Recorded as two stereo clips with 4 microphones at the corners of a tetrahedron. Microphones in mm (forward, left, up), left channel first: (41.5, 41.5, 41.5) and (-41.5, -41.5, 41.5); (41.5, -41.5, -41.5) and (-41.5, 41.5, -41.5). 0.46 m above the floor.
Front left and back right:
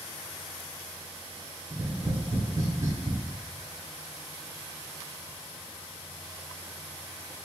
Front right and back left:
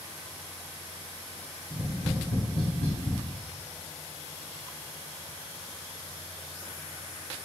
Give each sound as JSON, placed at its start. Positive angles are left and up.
{"t": 1.7, "sound": "tapping", "azimuth_deg": -70, "distance_m": 0.8}